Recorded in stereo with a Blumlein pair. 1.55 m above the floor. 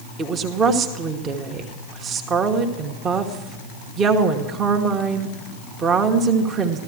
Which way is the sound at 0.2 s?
25° right.